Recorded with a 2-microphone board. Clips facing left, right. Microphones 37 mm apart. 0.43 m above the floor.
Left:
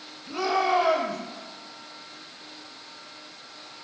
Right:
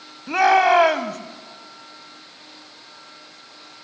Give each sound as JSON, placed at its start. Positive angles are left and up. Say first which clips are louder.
{"t": 0.3, "sound": "a shout", "louder": "right 9 dB", "side_deg": -70, "distance_m": 2.5}